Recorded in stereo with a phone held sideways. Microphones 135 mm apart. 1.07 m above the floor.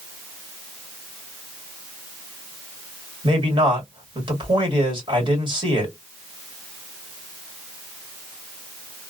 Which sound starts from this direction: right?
A man speaking, at 3.2 s.